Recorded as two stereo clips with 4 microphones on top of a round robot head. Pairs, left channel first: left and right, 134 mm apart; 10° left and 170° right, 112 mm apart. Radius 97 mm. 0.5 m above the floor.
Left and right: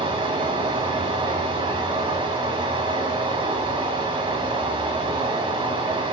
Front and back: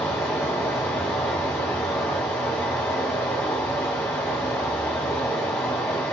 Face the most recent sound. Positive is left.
turn(degrees=-60)